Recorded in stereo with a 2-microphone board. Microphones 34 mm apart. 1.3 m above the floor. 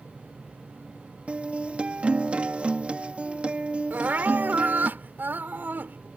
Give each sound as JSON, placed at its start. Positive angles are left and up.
{"t": 1.3, "sound": "a guitar", "side_deg": -40}
{"t": 3.9, "sound": "crying", "side_deg": -75}